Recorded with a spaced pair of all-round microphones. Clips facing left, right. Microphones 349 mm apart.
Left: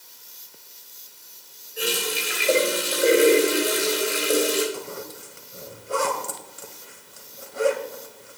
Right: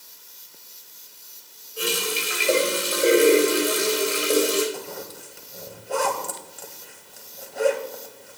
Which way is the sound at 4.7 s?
10° left (ahead or behind).